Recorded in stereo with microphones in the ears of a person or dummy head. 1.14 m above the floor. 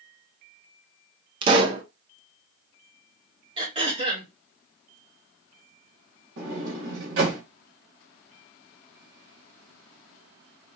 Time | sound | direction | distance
1.4 | a pop | 30° right (ahead or behind) | 0.7 m
3.6 | throat clearing | 20° right (ahead or behind) | 1.2 m
6.4 | a sliding door | 75° right (ahead or behind) | 2 m